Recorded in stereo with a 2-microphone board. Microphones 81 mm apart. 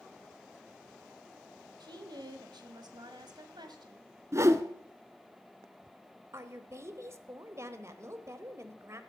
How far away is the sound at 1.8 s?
About 2.0 m.